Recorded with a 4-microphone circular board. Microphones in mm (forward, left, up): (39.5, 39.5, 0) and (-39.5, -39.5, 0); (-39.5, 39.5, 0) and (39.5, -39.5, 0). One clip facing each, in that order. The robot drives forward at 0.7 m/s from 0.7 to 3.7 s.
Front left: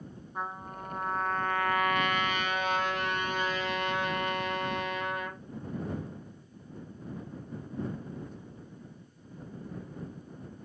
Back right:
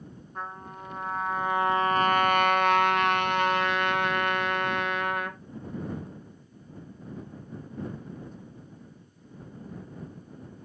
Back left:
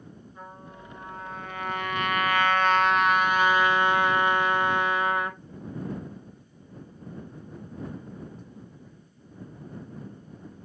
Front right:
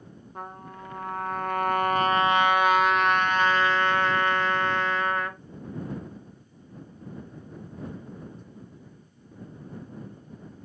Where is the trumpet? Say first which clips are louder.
Front left 1 dB, front right 6 dB; 35° right, 1.2 m; by 5.4 s 150° right, 1.4 m.